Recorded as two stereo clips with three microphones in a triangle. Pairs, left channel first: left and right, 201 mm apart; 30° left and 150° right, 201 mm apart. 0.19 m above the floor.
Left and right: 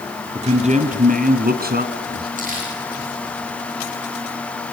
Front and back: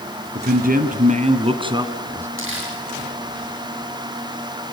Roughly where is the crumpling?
Behind right.